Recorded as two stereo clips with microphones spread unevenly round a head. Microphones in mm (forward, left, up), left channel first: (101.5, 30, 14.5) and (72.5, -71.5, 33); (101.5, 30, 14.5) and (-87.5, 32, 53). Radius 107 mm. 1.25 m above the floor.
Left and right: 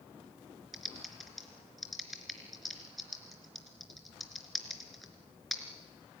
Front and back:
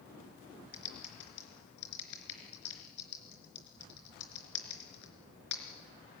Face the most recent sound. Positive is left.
turn(degrees=-20)